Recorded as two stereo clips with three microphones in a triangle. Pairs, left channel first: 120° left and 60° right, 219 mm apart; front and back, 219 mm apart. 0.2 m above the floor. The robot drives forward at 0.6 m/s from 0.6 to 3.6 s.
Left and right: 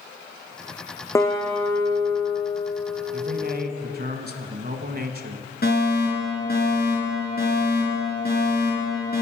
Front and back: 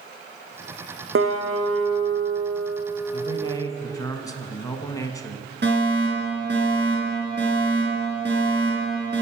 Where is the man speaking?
50° right, 1.5 m; by 5.5 s 65° right, 1.4 m.